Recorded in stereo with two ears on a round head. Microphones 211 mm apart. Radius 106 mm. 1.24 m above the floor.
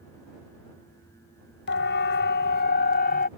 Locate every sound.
1.7 s a siren: 50° left (ahead or behind); by 3.3 s 40° left (ahead or behind)